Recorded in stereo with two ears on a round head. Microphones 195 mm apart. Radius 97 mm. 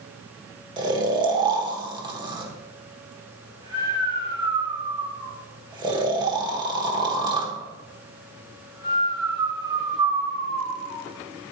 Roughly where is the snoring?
Right.